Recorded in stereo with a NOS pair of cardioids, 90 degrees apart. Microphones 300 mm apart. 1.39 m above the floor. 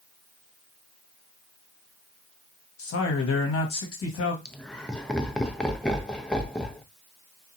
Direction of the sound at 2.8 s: 55° left.